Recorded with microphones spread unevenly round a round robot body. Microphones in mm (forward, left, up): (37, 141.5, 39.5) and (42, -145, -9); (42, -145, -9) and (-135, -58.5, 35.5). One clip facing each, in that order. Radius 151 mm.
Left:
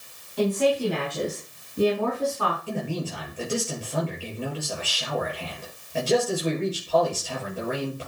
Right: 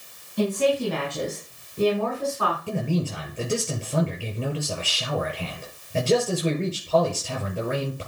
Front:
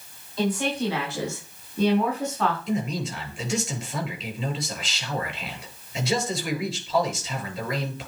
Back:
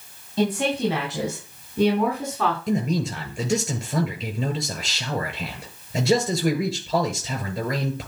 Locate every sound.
0.4 s a woman speaking: 170° right, 4 m; by 2.6 s 165° left, 4.5 m
2.7 s a man speaking: 165° right, 7.5 m